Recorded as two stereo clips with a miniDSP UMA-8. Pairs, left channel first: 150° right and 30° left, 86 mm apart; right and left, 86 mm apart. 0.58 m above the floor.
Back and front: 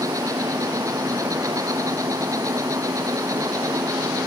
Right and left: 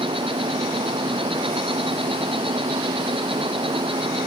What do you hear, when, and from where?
0.0 s an insect: 80° left